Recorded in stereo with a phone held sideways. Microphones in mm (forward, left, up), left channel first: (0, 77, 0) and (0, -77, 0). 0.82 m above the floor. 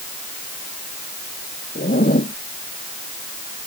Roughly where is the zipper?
Left.